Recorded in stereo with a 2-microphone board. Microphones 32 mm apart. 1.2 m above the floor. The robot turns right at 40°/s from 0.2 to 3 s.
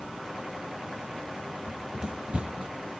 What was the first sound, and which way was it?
Running footsteps, 15° right (ahead or behind).